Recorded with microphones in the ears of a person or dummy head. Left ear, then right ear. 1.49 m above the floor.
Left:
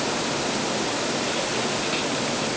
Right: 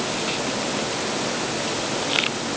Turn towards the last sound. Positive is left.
No sound to turn to.